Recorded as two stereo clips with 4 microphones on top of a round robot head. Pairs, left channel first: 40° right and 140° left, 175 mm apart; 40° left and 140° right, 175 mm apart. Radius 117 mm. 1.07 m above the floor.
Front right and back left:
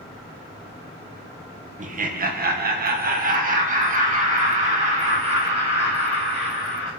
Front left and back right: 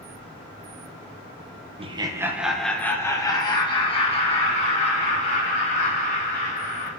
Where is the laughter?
170° left, 1.0 m; by 6.9 s 85° left, 4 m.